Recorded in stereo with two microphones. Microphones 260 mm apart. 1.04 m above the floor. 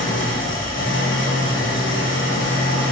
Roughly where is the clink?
I don't hear a clink.